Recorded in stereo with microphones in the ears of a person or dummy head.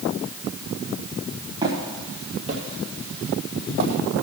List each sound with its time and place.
1.6 s footsteps: 25° right (ahead or behind), 3 m; by 4.0 s 55° right (ahead or behind), 3.5 m